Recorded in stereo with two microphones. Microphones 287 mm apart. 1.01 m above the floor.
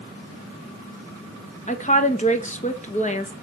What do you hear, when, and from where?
1.7 s a woman speaking: 25° left (ahead or behind), 1.3 m